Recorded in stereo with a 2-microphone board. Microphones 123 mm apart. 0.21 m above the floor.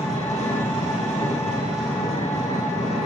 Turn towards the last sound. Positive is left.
turn(degrees=65)  # may be behind; listen again after turning